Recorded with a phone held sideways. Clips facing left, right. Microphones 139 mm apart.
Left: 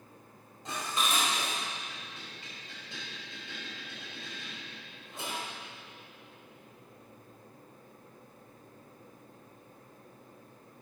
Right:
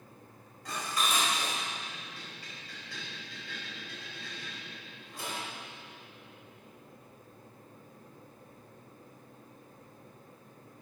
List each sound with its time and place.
0.7 s dishes clattering: 25° left (ahead or behind), 4.5 m